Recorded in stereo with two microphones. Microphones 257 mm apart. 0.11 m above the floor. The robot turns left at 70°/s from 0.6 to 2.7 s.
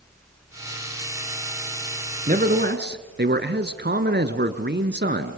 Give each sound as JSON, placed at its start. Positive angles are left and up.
{"t": 2.3, "sound": "a man speaking", "azimuth_deg": -55, "distance_m": 1.3}